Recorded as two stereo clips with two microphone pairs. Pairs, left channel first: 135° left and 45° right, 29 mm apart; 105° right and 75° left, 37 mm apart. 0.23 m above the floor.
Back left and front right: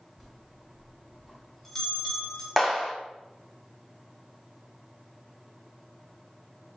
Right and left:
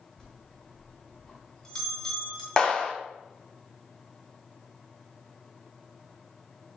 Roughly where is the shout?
No shout in this recording.